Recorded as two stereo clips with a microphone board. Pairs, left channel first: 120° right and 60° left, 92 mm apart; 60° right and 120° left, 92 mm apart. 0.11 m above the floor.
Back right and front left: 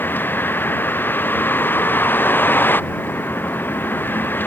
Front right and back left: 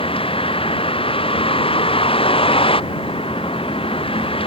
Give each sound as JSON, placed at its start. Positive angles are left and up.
{"t": 0.0, "sound": "a vehicle", "azimuth_deg": -50}